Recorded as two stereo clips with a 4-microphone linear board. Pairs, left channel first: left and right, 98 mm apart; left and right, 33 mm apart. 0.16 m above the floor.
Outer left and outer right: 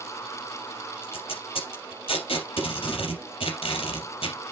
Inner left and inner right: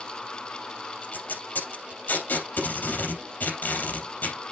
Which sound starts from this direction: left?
Tape being pulled, at 1.0 s.